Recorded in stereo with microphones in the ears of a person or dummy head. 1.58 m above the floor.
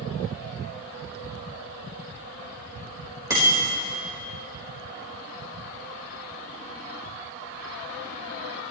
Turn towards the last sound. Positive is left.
turn(degrees=-15)  # may be behind; listen again after turning